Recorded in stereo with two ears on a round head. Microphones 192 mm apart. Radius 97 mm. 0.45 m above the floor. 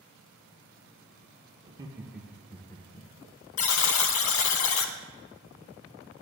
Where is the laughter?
25° right (ahead or behind), 0.8 m; by 3.1 s 30° left (ahead or behind), 0.9 m.